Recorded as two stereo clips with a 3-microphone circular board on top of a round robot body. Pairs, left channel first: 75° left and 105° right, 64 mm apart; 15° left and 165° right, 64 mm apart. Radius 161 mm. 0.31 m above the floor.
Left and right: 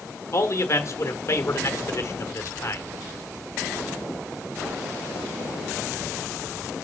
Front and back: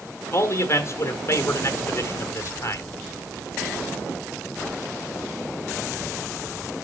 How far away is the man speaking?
About 1.5 m.